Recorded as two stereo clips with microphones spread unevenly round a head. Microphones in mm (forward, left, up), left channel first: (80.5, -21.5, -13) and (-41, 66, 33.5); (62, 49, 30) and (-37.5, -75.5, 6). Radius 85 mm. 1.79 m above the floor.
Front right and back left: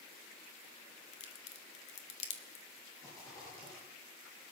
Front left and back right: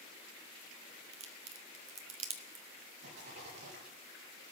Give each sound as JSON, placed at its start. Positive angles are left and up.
{"t": 1.1, "sound": "a crack", "azimuth_deg": -90, "distance_m": 1.5}
{"t": 3.0, "sound": "a rattle", "azimuth_deg": -110, "distance_m": 7.5}